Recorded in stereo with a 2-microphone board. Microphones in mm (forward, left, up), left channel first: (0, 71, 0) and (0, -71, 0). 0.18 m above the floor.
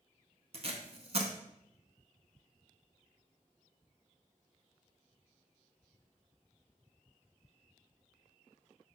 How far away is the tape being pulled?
About 0.6 m.